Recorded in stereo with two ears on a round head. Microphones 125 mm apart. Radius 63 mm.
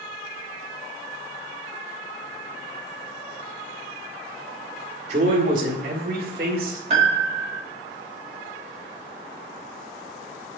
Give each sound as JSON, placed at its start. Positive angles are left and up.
{"t": 5.1, "sound": "a man speaking", "side_deg": -50, "distance_m": 1.7}
{"t": 6.9, "sound": "a piano", "side_deg": -45, "distance_m": 1.7}